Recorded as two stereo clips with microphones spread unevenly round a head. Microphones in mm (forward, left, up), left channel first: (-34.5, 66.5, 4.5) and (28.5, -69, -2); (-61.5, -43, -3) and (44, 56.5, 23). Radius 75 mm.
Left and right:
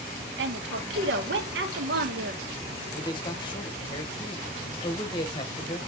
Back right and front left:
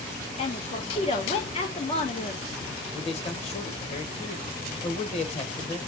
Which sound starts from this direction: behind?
A man speaking, at 2.9 s.